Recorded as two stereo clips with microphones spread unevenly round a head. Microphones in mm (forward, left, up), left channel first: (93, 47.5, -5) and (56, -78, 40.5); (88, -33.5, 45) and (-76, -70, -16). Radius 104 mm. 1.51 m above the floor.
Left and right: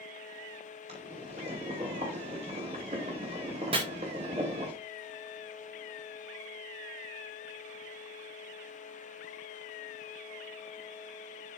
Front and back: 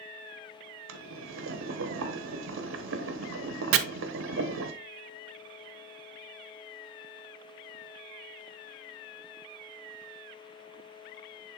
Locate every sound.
0.9 s boiling: 170° right, 1.2 m
3.7 s chopping: 155° right, 0.7 m